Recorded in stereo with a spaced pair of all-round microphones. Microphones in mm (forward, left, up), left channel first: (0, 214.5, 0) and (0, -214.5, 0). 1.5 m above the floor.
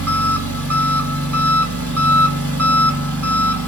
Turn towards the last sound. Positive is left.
turn(degrees=-35)  # may be behind; listen again after turning